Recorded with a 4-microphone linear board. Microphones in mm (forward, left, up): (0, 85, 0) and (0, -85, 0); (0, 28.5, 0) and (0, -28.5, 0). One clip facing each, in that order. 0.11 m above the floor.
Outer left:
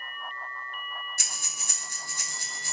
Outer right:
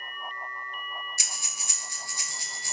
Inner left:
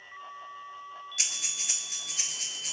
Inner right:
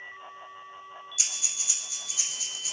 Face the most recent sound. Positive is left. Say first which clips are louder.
# even, inner left 2 dB
turn(degrees=50)  # may be behind; listen again after turning